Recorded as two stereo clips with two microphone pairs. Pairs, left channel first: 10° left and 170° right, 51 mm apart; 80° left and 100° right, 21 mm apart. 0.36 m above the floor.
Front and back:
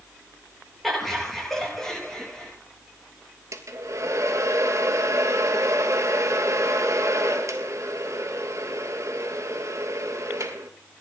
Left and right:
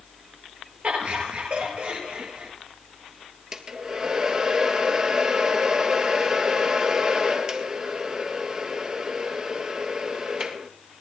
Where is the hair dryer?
155° right, 1.9 m.